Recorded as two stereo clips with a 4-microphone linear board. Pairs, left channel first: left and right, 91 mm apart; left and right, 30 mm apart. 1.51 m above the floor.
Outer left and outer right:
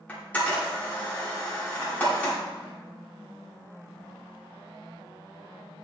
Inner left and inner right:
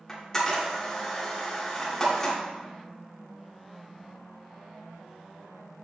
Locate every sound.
0.1 s a camera shutter: 15° left (ahead or behind), 2.5 m